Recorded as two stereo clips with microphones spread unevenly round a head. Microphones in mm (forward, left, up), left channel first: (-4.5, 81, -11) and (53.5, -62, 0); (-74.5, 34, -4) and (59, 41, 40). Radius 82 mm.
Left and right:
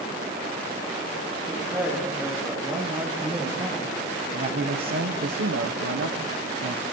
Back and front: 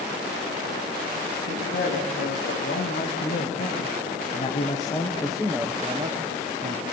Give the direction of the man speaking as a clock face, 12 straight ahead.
5 o'clock.